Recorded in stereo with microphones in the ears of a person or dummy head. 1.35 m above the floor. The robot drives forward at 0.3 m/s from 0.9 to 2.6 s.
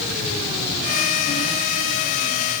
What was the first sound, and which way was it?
Only background noise.